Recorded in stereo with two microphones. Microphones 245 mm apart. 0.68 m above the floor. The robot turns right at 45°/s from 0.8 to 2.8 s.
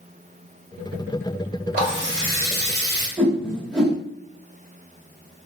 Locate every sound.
1.7 s a running tap: 145° right, 1.6 m; by 3.1 s 95° right, 1.6 m
3.2 s a whoosh: 5° left (ahead or behind), 1.4 m